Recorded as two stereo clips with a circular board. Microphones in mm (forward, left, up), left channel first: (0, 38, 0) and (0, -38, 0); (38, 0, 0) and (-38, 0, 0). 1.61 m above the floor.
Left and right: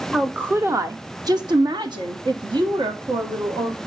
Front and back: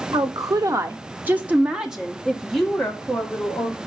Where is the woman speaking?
165° right, 0.7 m; by 3.8 s 80° right, 1.9 m.